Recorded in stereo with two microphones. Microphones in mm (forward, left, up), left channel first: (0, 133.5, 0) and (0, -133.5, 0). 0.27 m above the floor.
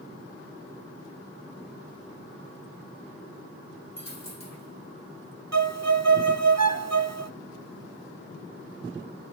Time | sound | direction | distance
4.0 | a dropped coin | 70° left (ahead or behind) | 3.5 m
5.5 | a violin | 70° right (ahead or behind) | 0.8 m